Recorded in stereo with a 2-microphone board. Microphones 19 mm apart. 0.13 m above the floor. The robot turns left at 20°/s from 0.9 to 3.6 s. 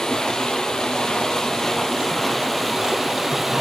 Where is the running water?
40° left, 2 m; by 3.6 s 15° right, 2 m.